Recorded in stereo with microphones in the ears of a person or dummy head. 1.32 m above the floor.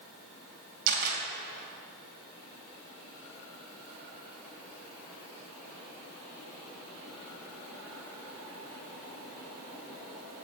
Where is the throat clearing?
I don't hear throat clearing.